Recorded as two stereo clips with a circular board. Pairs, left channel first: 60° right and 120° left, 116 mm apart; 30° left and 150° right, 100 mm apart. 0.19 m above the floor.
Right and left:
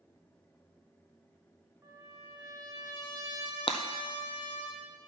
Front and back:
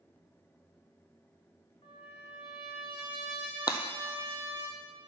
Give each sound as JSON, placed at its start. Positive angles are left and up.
{"t": 1.8, "sound": "a trumpet", "azimuth_deg": 55, "distance_m": 3.0}
{"t": 3.7, "sound": "breaking glass", "azimuth_deg": -20, "distance_m": 0.8}